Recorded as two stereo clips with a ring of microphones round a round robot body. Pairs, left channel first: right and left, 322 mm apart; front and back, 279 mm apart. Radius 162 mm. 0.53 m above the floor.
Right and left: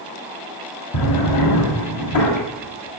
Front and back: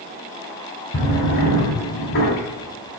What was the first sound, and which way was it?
A drawer, 55° right.